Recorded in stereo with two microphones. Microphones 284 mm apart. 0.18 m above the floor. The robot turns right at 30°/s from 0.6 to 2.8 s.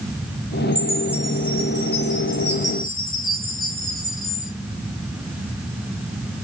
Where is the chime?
15° right, 3.5 m; by 4.5 s 45° left, 3.5 m.